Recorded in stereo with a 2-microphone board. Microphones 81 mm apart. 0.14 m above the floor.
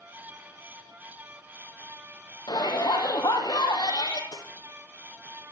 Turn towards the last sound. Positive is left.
turn(degrees=55)  # may be behind; listen again after turning